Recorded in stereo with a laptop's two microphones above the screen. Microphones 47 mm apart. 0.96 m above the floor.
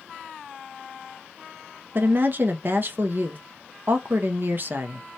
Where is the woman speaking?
45° right (ahead or behind), 0.6 m.